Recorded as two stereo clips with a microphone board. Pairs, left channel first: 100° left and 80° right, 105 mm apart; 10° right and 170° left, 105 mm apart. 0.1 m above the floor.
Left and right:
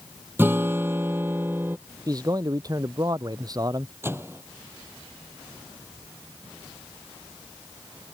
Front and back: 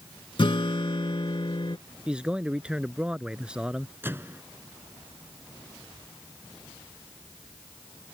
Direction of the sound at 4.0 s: 130° right.